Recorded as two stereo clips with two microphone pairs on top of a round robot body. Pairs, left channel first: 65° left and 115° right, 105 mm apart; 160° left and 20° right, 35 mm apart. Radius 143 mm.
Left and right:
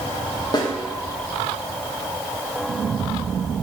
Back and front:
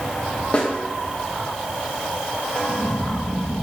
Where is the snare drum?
115° left, 1.5 m.